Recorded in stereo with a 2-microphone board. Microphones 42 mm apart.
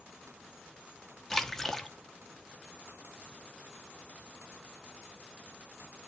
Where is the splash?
10° left (ahead or behind), 1.0 m.